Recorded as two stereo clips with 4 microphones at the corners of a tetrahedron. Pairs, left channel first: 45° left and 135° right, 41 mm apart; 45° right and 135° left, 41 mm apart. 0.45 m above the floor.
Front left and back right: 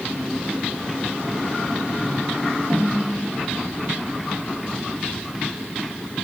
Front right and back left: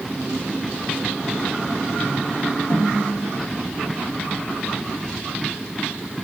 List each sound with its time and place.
2.7 s a snare drum: 70° right, 3.5 m